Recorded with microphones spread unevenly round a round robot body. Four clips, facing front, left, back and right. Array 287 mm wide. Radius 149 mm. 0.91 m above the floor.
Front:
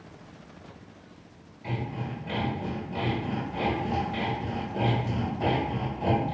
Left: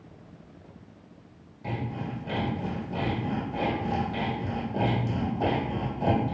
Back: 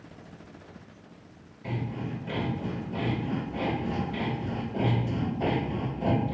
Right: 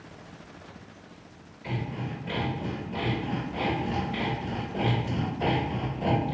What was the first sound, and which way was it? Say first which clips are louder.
Sawing: left 1 dB, even; 115° left.